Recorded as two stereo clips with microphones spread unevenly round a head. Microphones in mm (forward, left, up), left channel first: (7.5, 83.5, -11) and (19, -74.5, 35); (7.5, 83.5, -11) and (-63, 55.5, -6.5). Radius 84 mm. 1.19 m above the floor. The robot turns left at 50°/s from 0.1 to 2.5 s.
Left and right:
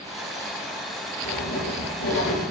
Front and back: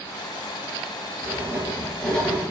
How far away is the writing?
About 7 m.